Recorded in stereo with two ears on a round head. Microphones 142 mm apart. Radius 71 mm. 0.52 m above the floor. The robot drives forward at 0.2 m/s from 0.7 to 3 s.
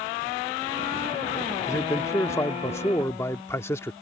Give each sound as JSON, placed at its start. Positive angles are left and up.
{"t": 1.7, "sound": "a man speaking", "side_deg": 20}